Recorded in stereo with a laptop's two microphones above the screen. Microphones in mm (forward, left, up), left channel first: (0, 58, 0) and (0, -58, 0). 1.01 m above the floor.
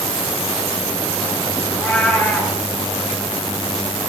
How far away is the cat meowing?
About 5.5 m.